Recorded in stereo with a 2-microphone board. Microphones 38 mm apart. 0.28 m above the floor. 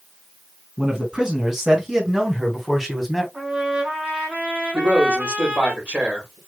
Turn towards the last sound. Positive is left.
turn(degrees=-40)  # may be behind; listen again after turning